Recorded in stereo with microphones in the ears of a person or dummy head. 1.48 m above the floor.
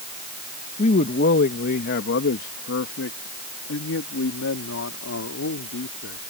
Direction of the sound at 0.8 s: 45° left (ahead or behind).